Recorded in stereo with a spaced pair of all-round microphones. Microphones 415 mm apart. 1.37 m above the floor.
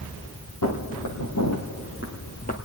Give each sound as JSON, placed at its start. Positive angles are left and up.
{"t": 0.6, "sound": "footsteps", "side_deg": 50, "distance_m": 2.0}